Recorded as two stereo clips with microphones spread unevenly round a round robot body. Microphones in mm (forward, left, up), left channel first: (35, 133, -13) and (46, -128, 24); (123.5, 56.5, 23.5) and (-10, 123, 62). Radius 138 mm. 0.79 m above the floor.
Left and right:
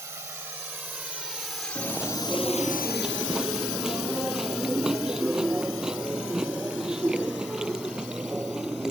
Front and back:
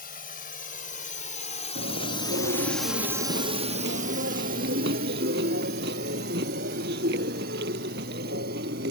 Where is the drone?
10° right; by 8.9 s 145° left.